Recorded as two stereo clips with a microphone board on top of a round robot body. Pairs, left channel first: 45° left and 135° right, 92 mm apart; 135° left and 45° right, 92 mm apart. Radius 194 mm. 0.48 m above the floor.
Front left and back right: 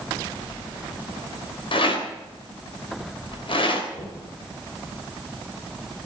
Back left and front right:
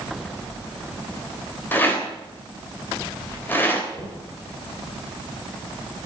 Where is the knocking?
65° left, 8.5 m.